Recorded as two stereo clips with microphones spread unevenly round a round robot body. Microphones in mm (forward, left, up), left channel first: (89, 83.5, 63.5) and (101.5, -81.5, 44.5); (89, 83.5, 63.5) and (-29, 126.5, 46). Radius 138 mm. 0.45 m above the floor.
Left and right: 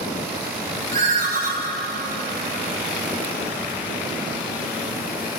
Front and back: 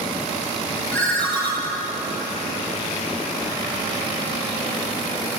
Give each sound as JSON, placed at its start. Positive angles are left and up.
{"t": 0.9, "sound": "a ringtone", "azimuth_deg": -105, "distance_m": 1.5}